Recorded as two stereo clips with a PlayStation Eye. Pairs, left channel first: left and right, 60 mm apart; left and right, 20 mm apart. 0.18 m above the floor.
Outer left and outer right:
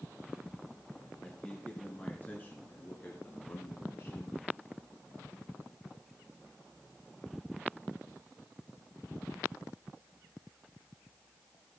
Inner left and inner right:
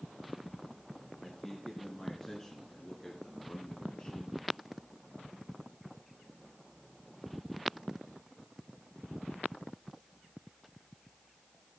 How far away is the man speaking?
About 3 m.